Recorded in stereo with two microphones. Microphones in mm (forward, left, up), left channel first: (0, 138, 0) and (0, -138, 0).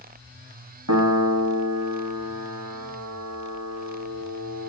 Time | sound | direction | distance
0.9 | a piano | 80° right | 2 m